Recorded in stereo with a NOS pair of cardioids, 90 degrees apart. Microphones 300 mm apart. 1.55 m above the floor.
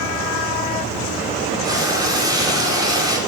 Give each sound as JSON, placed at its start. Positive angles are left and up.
{"t": 1.6, "sound": "frying", "azimuth_deg": -10, "distance_m": 4.5}